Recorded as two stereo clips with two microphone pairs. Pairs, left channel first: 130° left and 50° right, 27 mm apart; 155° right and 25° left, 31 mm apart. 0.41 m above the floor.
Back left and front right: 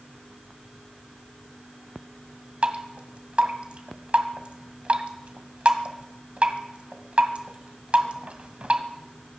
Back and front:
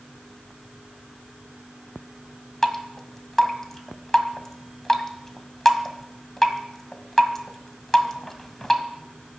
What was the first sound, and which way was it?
Dripping, 80° right.